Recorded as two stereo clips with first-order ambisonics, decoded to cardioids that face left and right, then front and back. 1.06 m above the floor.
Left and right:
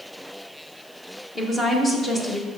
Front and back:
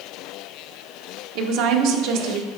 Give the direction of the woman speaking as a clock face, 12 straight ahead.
6 o'clock.